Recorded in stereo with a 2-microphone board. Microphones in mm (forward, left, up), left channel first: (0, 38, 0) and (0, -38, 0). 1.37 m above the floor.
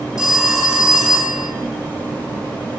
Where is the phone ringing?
10° right (ahead or behind), 2.5 m.